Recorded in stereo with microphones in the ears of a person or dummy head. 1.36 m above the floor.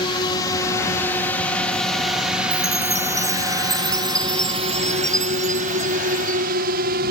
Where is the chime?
20° right (ahead or behind).